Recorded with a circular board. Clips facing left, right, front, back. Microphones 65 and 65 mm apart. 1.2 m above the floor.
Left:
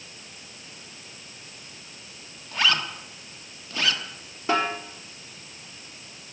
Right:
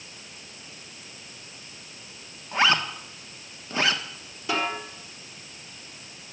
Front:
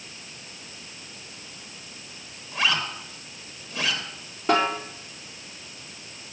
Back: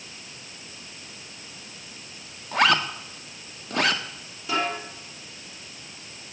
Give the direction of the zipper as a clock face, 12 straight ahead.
5 o'clock.